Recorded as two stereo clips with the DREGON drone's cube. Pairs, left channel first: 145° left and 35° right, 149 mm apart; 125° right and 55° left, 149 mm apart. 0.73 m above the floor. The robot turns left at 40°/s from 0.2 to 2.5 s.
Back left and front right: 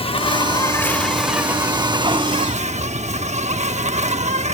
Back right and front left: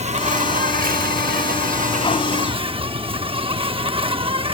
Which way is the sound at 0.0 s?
95° left.